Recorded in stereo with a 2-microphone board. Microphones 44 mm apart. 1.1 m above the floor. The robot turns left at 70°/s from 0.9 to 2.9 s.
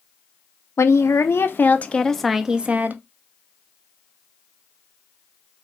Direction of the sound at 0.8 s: 95° left.